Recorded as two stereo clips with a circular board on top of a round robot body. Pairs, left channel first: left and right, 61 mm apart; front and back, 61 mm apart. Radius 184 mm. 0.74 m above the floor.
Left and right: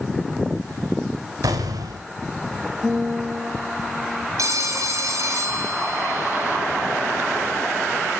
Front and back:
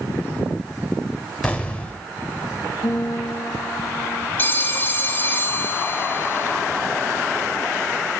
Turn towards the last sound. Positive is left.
turn(degrees=-55)